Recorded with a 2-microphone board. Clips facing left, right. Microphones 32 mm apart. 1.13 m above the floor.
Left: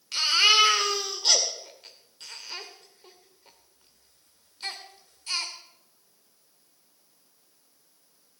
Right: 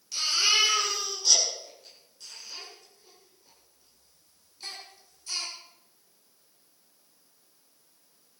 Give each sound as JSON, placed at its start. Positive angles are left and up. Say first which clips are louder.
{"t": 0.1, "sound": "a baby crying", "louder": "left 5 dB", "side_deg": 55, "distance_m": 2.0}